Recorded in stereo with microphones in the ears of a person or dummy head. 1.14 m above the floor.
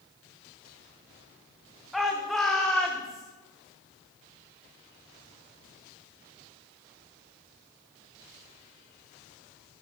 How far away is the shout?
About 2.5 m.